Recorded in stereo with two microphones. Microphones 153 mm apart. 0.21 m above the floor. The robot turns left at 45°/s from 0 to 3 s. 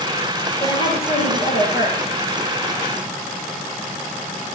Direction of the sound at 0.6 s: 155° left.